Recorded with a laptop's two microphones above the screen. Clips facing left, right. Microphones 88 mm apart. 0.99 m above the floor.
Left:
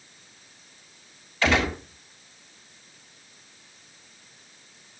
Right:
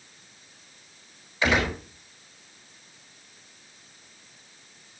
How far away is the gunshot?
About 5.5 m.